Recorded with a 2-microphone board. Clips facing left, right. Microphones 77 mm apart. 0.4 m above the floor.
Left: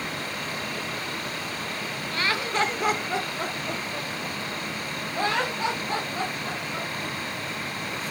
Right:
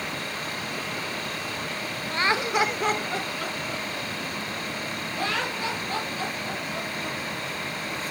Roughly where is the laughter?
Right.